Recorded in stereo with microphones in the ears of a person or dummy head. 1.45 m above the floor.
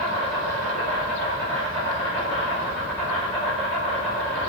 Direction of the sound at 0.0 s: 5° left (ahead or behind).